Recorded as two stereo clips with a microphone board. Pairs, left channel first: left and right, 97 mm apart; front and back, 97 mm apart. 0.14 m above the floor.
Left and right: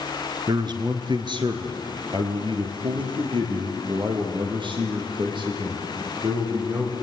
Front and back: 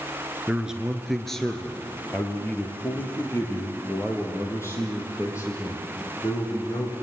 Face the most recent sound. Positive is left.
turn(degrees=-55)